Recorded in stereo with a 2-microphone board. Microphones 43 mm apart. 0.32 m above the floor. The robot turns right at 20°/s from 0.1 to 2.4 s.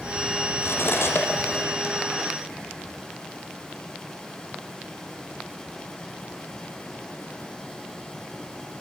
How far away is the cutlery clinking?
About 7 m.